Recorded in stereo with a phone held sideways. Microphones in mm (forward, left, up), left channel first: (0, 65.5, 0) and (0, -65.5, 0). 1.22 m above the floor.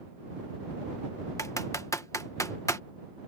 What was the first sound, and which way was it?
Typing on a keyboard, 25° left (ahead or behind).